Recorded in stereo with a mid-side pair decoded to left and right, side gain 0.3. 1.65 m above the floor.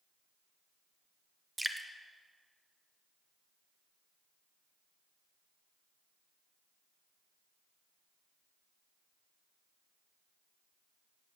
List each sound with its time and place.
1.6 s dripping: 20° right, 1.1 m